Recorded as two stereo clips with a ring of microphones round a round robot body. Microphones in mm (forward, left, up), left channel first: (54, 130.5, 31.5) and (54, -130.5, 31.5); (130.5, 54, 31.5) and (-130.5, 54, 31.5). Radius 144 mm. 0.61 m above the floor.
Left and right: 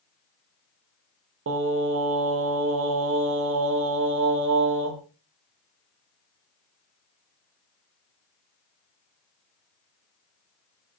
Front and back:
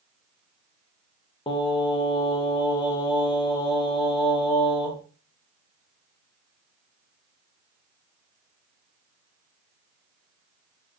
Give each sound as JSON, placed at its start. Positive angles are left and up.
{"t": 1.5, "sound": "singing", "azimuth_deg": -70, "distance_m": 0.7}